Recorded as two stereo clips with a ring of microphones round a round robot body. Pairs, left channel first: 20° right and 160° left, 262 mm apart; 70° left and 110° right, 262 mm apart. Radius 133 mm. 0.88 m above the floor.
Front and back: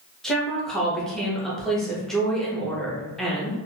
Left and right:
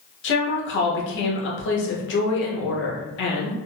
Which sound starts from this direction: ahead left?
A woman speaking, at 0.2 s.